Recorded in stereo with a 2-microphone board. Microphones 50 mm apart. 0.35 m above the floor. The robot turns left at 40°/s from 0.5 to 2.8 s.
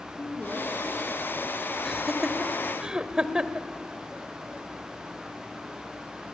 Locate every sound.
0.2 s a woman speaking: 140° left, 3.5 m; by 1.3 s 105° left, 3.5 m
1.9 s laughter: 5° left (ahead or behind), 1.1 m; by 3.7 s 15° right (ahead or behind), 1.1 m